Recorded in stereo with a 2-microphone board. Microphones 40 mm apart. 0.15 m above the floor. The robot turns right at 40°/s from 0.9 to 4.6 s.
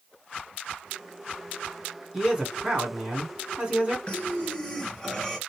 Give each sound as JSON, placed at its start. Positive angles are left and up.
{"t": 2.1, "sound": "a man speaking", "side_deg": -10, "distance_m": 1.4}
{"t": 4.1, "sound": "breathing", "side_deg": 30, "distance_m": 1.0}